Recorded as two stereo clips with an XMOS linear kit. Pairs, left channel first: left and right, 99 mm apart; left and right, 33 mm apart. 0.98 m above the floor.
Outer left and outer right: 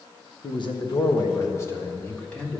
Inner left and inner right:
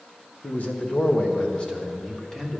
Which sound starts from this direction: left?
A man speaking, at 0.4 s.